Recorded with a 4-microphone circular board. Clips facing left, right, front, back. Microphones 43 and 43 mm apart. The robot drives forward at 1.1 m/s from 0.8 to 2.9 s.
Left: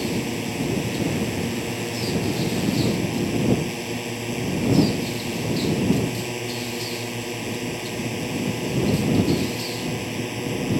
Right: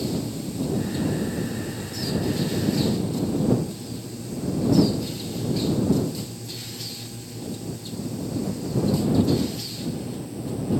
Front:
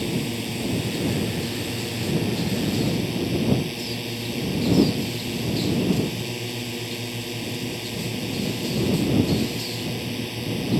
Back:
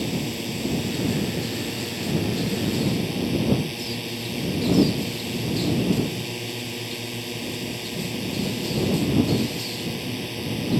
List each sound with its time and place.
0.0 s a drone: 85° left; by 10.8 s 90° left